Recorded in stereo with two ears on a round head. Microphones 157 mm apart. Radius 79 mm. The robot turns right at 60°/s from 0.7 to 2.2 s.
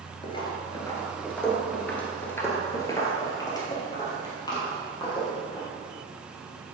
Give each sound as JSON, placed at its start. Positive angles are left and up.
{"t": 0.2, "sound": "footsteps", "side_deg": 30, "distance_m": 1.8}